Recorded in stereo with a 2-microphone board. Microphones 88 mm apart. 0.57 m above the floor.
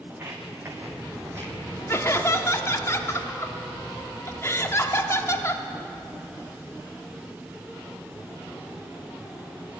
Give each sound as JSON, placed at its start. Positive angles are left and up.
{"t": 0.1, "sound": "footsteps", "side_deg": -25, "distance_m": 2.0}
{"t": 1.9, "sound": "laughter", "side_deg": 30, "distance_m": 0.8}